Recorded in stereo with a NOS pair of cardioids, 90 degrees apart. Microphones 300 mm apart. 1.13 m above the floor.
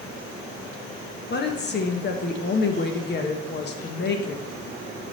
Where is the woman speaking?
40° left, 1.3 m.